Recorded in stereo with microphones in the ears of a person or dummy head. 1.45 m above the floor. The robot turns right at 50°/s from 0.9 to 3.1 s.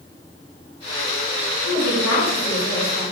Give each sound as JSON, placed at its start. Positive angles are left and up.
{"t": 1.6, "sound": "a woman speaking", "azimuth_deg": 80, "distance_m": 2.0}